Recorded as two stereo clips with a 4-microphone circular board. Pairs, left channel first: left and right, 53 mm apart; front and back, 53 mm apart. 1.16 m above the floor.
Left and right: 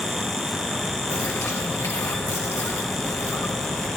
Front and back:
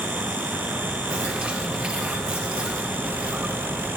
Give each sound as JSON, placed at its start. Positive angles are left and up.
{"t": 1.1, "sound": "a bird", "azimuth_deg": 110, "distance_m": 1.6}